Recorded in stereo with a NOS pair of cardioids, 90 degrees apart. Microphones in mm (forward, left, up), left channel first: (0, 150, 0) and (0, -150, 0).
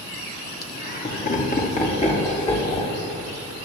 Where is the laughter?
35° left, 3 m; by 3.0 s 20° left, 4.5 m.